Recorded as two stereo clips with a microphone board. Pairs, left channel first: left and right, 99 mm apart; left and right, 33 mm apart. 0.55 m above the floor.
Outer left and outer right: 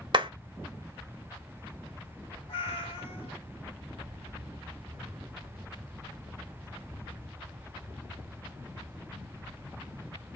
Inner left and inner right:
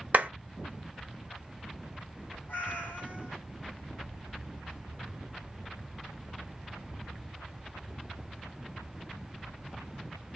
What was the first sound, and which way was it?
A clap, 50° right (ahead or behind).